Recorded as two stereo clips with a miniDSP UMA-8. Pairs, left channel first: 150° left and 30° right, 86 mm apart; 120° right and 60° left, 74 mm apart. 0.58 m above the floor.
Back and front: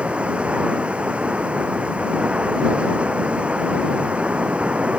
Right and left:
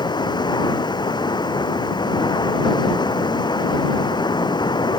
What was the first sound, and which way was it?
Running water, 105° right.